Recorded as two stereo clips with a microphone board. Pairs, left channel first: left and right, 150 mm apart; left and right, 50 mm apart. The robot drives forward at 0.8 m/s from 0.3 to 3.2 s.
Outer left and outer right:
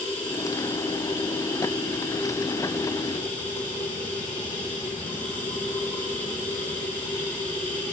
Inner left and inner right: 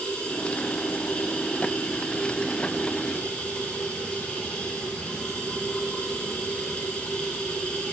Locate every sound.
0.0 s running water: 20° left (ahead or behind), 9.5 m; by 7.9 s 15° left (ahead or behind), 11.5 m